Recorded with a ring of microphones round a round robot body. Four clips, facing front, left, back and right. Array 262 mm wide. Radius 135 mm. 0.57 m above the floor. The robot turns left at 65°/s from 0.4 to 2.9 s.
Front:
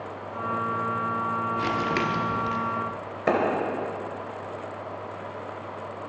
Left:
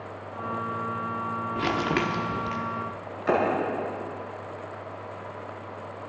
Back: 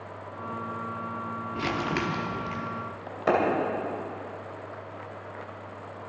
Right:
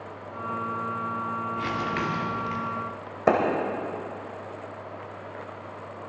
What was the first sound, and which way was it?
Crumpling, 105° left.